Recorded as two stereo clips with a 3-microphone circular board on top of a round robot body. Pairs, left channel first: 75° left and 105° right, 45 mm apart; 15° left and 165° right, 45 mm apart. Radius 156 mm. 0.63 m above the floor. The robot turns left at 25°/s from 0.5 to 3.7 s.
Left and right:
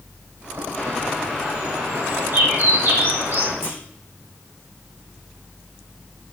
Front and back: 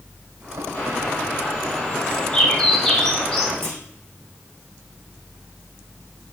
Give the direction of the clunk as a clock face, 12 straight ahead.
5 o'clock.